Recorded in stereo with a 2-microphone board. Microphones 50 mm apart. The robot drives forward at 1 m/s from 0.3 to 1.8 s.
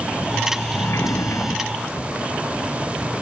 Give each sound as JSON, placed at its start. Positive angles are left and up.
{"t": 0.7, "sound": "a sliding door", "side_deg": 70}